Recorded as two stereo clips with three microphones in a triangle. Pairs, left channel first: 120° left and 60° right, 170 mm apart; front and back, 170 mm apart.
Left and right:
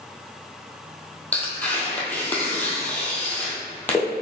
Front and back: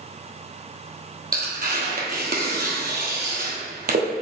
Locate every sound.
1.3 s tearing paper: 160° right, 1.2 m